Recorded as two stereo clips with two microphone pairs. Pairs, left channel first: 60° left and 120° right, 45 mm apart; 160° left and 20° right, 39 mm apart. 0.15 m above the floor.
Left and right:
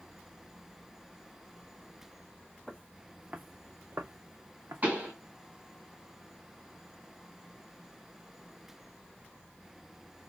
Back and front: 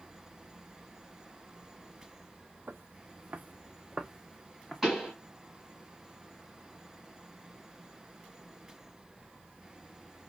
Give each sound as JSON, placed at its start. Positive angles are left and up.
{"t": 2.7, "sound": "footsteps", "azimuth_deg": -25, "distance_m": 0.7}
{"t": 4.8, "sound": "a pop", "azimuth_deg": -110, "distance_m": 1.9}